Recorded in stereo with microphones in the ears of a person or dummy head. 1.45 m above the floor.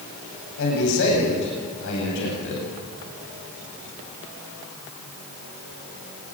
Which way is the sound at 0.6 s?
60° left (ahead or behind).